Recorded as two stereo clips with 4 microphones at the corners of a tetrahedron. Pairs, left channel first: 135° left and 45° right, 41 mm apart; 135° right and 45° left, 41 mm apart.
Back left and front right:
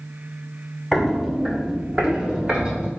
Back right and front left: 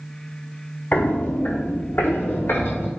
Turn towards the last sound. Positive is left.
turn(degrees=-115)